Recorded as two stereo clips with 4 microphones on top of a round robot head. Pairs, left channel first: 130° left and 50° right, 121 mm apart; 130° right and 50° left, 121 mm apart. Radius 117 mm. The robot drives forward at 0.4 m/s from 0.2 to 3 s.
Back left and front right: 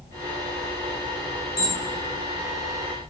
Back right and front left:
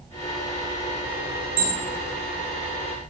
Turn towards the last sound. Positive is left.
turn(degrees=100)